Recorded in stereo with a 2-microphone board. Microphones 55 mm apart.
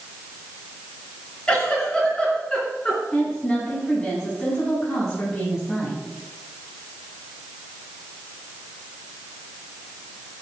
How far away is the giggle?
About 3.5 m.